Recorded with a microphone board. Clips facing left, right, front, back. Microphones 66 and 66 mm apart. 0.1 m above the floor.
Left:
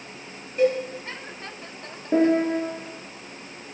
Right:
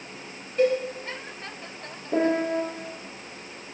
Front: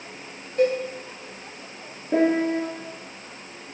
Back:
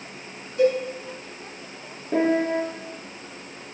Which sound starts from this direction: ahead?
A cowbell, at 0.6 s.